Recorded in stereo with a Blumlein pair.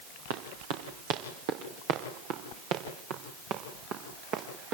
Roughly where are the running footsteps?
Ahead right.